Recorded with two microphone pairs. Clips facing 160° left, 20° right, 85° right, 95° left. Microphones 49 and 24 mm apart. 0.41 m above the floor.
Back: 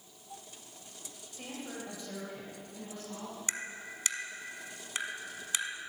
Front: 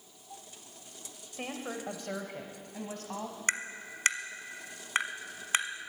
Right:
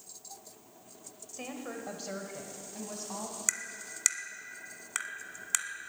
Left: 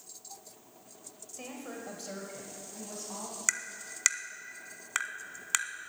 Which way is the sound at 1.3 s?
15° right.